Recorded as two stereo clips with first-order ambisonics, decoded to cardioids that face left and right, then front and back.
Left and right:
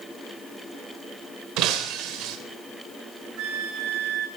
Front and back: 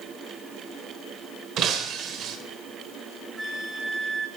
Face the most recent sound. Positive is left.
turn(degrees=-100)